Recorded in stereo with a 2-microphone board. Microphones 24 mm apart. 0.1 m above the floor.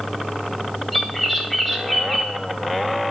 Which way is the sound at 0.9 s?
5° right (ahead or behind).